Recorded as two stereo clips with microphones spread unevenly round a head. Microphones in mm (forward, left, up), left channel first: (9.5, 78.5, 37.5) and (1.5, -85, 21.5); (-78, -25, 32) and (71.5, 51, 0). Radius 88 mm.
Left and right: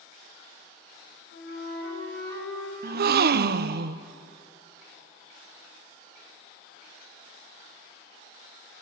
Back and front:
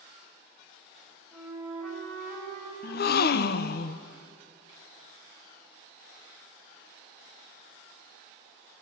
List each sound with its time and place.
1.3 s a flute: 115° left, 6.5 m
2.8 s a gasp: 115° right, 0.6 m